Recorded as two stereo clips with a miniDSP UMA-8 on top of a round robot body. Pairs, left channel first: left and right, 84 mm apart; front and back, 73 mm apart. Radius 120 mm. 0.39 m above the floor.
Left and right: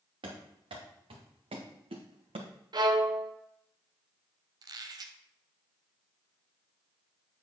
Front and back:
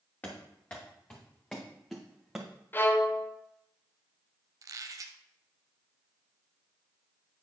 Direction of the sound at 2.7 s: 60° right.